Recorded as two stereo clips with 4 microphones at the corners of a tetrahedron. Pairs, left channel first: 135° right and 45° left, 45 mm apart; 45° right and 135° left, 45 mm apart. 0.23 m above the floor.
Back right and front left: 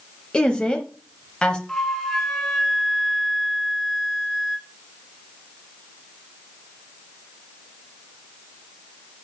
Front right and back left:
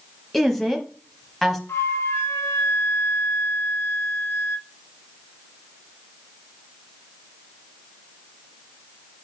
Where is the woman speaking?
120° right, 1.0 m.